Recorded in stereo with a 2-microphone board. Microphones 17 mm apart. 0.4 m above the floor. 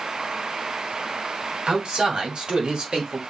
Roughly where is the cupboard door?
No cupboard door in this recording.